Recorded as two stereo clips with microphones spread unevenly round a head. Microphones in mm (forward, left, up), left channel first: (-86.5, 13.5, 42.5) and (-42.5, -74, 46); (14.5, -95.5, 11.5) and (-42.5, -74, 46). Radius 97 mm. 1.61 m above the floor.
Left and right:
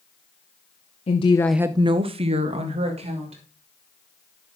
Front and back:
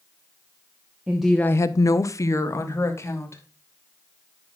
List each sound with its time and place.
1.1 s a woman speaking: 110° left, 0.9 m; by 3.4 s 70° right, 3 m